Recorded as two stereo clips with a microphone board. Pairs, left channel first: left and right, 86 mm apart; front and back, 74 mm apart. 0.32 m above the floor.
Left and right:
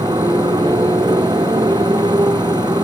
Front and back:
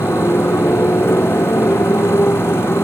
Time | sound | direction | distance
0.0 | a motorcycle | 55° right | ?